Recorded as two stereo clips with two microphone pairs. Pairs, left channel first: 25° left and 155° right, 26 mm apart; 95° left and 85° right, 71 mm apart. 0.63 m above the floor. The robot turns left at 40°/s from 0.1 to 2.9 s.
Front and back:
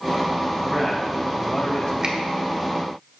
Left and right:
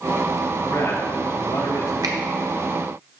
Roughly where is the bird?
I don't hear a bird.